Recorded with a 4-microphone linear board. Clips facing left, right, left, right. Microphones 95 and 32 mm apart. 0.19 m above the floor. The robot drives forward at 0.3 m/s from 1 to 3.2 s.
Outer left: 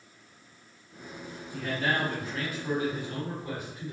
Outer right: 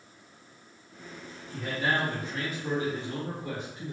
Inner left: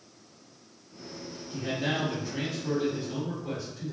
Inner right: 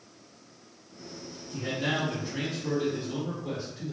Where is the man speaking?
20° right (ahead or behind), 1.5 m; by 3.9 s 25° right (ahead or behind), 1.4 m.